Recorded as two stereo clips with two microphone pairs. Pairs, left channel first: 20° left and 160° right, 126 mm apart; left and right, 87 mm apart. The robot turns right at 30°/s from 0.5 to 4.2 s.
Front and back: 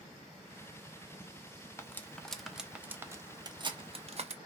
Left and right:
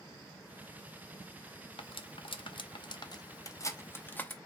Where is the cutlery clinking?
90° left, 0.6 m; by 4.4 s 165° left, 0.6 m.